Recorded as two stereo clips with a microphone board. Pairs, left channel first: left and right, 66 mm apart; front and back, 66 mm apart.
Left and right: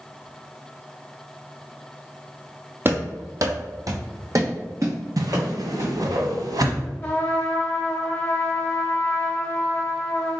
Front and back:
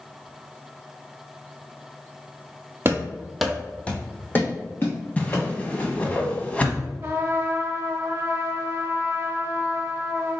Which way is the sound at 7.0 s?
150° left.